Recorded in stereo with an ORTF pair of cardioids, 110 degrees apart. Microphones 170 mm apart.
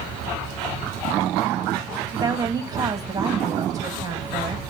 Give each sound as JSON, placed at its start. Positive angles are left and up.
{"t": 2.1, "sound": "a woman speaking", "azimuth_deg": -20, "distance_m": 2.5}